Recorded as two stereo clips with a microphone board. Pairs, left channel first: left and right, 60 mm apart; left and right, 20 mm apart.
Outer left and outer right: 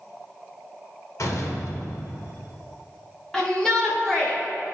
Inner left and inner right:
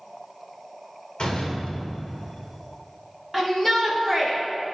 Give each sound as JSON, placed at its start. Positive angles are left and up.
{"t": 1.2, "sound": "a door slam", "side_deg": 65, "distance_m": 1.7}
{"t": 3.3, "sound": "a shout", "side_deg": 10, "distance_m": 1.1}